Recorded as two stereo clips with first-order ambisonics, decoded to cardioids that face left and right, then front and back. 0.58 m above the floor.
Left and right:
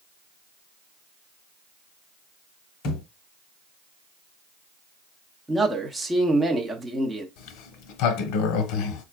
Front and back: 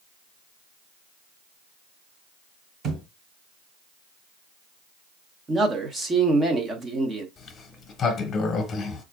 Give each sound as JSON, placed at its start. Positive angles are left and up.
{"t": 2.8, "sound": "a thud", "azimuth_deg": 120, "distance_m": 1.1}
{"t": 5.5, "sound": "a man speaking", "azimuth_deg": -155, "distance_m": 0.8}
{"t": 7.4, "sound": "a sliding door", "azimuth_deg": 70, "distance_m": 0.7}